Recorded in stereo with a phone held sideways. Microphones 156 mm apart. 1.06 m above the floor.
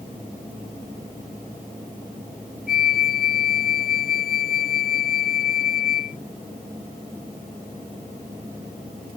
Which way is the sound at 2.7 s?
70° left (ahead or behind).